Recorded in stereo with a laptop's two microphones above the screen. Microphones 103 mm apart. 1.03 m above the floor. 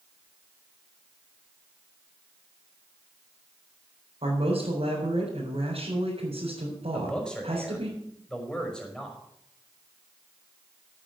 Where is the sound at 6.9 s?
10° left (ahead or behind), 5 m.